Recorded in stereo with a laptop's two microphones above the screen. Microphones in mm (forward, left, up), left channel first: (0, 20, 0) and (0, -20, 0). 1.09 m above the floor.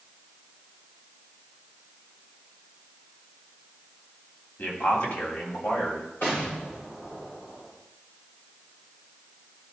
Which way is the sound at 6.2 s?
70° left (ahead or behind).